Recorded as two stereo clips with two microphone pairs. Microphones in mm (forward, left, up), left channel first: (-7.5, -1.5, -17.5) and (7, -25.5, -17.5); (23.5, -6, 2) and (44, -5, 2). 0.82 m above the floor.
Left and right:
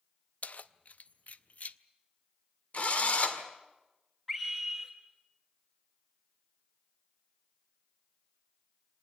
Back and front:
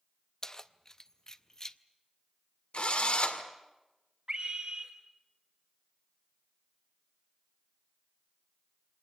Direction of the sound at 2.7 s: 155° left.